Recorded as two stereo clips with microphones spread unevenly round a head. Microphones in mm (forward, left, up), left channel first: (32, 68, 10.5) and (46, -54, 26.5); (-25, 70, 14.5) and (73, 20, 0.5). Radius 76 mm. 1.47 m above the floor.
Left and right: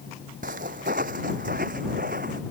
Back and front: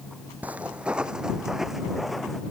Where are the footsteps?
110° right; by 2.4 s 120° right.